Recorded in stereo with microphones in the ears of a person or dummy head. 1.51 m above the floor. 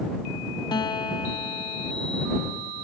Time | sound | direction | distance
0.7 | a guitar | 25° left (ahead or behind) | ?